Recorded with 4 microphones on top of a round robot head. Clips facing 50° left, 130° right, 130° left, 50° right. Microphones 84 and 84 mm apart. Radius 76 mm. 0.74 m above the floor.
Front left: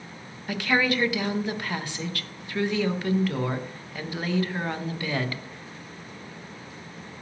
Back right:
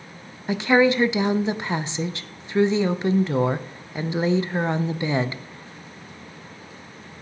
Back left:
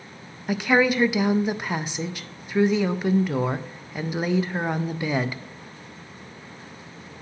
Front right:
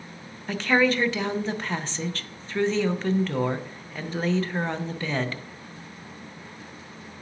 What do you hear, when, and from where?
0.5 s a woman speaking: 165° right, 0.5 m